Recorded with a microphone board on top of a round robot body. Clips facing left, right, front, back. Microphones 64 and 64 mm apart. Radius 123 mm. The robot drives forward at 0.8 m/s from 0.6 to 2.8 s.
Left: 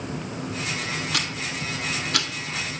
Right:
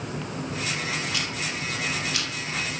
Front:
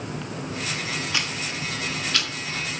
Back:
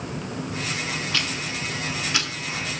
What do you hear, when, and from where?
1.1 s ticking: 70° left, 1.2 m; by 2.3 s 115° left, 1.3 m